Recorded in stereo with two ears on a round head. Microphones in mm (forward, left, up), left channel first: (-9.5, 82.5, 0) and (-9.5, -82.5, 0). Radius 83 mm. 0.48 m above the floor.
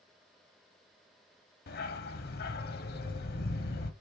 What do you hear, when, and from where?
1.7 s a dog barking: 55° left (ahead or behind), 1.0 m